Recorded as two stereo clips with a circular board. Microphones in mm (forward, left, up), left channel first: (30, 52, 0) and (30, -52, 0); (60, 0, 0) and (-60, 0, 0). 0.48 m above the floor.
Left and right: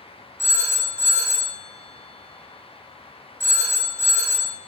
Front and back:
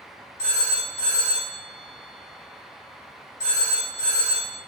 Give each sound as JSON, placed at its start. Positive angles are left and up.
{"t": 0.4, "sound": "a phone ringing", "azimuth_deg": 155, "distance_m": 2.5}